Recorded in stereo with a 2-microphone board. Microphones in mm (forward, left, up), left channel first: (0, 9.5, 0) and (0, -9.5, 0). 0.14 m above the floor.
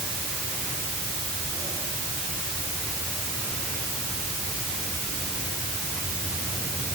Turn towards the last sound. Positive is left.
No sound to turn to.